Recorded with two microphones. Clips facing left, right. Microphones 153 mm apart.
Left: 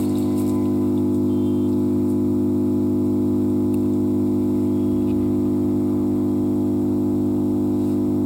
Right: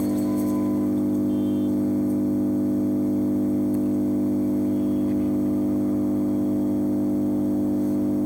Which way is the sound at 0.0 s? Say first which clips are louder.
Left 3 dB; 90° left.